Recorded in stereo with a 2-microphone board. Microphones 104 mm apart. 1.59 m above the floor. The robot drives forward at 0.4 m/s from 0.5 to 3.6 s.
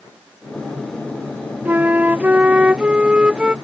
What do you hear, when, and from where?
1.6 s a flute: 20° right (ahead or behind); by 3.5 s 10° right (ahead or behind)